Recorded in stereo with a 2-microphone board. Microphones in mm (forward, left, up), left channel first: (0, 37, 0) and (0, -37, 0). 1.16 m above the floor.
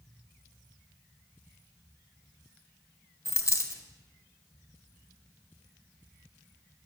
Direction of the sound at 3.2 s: 45° left (ahead or behind).